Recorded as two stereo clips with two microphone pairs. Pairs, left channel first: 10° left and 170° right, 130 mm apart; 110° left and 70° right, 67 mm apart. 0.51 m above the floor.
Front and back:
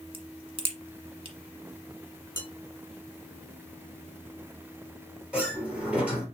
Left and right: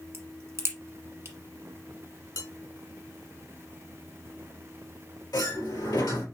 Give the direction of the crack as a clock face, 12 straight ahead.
4 o'clock.